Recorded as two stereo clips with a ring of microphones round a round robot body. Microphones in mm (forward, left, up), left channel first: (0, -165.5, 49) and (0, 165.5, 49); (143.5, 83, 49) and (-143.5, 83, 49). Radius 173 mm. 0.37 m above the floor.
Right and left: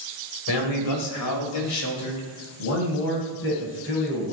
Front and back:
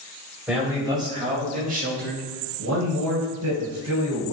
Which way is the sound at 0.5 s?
95° right.